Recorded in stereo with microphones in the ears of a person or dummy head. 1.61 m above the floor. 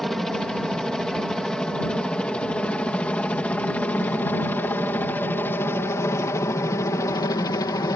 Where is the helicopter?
Centre (ahead or behind); by 8.0 s 15° left (ahead or behind).